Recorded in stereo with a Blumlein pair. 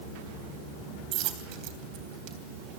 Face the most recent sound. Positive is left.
turn(degrees=-40)